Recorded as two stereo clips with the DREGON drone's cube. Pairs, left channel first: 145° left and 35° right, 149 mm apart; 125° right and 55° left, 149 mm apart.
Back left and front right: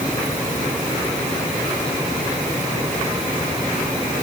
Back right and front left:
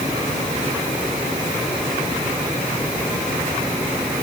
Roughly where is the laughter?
No laughter in this recording.